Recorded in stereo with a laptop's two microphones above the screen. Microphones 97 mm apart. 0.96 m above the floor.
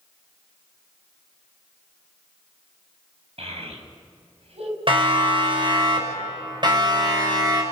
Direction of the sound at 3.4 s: 80° right.